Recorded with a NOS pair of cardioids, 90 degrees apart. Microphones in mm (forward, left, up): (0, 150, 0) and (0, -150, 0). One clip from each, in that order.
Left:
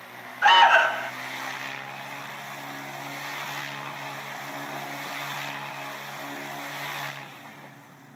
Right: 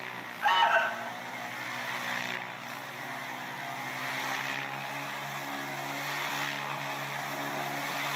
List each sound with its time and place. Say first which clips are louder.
0.4 s an alarm: left 9 dB; 55° left, 0.8 m